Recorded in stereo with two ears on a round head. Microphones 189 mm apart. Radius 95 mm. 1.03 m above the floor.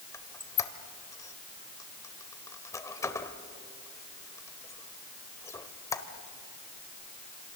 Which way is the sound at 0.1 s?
15° left (ahead or behind).